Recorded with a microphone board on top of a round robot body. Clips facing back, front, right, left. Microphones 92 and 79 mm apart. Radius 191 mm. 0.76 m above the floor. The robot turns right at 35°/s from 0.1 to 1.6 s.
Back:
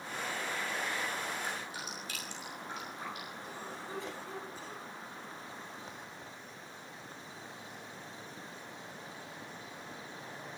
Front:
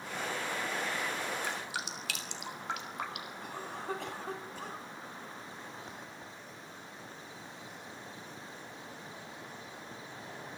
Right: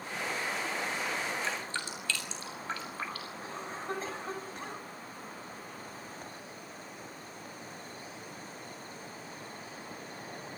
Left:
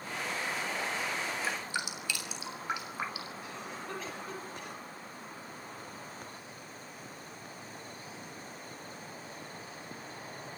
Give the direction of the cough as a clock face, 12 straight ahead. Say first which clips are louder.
Front 3 dB, right 3 dB; 1 o'clock.